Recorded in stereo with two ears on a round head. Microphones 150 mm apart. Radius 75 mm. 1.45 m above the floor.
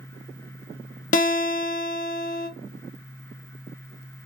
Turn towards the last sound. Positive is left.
turn(degrees=50)  # may be behind; listen again after turning